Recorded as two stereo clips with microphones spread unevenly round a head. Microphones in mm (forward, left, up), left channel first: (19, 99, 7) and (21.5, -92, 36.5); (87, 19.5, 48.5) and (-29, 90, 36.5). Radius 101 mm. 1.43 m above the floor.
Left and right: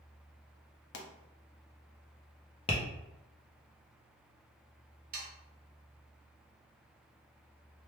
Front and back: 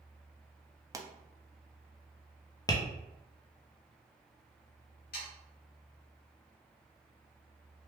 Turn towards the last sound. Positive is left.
turn(degrees=-55)